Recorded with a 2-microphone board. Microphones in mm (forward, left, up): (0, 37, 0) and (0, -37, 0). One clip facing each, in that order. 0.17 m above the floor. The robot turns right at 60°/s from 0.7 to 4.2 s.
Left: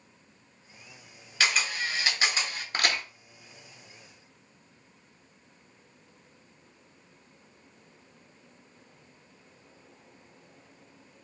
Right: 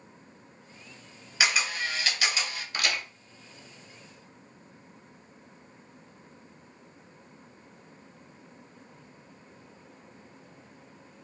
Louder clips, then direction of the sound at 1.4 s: Right 1 dB; 15° right (ahead or behind).